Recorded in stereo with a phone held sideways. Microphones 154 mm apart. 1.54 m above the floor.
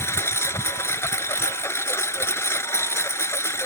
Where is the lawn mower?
15° left (ahead or behind).